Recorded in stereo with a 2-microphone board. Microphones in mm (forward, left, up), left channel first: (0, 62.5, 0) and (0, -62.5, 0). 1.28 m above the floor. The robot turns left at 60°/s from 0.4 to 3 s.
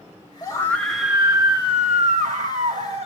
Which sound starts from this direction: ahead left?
A scream, at 0.4 s.